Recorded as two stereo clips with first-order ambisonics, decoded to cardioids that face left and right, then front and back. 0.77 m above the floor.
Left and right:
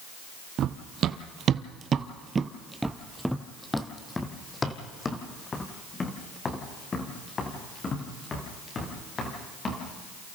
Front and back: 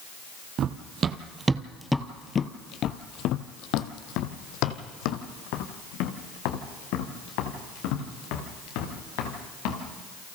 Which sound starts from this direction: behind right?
Running footsteps, at 0.6 s.